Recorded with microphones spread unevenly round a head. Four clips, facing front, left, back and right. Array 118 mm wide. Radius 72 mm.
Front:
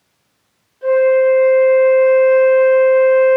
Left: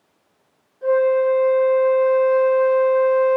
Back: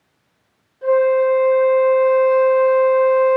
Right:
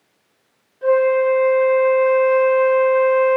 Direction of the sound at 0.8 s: 95° right.